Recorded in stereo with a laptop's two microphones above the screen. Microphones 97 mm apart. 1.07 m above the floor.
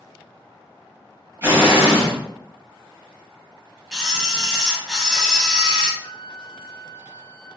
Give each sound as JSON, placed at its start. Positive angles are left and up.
{"t": 1.4, "sound": "an explosion", "side_deg": -25, "distance_m": 1.1}
{"t": 3.9, "sound": "a camera shutter", "side_deg": 0, "distance_m": 1.0}
{"t": 6.0, "sound": "a flute", "side_deg": 75, "distance_m": 1.1}